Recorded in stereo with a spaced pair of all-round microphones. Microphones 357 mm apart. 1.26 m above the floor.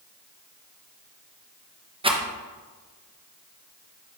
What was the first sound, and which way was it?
A rattle, 15° right (ahead or behind).